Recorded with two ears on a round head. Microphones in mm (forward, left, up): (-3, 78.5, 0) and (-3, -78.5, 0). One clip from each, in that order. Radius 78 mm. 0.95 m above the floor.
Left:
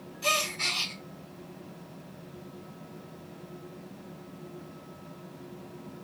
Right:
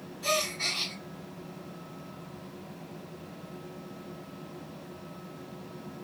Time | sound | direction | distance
0.2 | a gasp | 70° left (ahead or behind) | 3.5 m